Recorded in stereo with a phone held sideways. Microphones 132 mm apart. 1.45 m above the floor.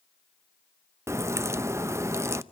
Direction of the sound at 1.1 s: 20° right (ahead or behind).